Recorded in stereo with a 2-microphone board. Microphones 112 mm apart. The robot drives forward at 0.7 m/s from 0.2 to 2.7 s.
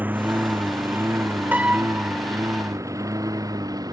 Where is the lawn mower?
15° right (ahead or behind); by 3.9 s 35° right (ahead or behind).